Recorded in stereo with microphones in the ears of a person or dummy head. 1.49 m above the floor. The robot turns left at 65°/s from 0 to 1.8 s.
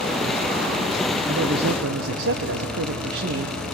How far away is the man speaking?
About 1.0 m.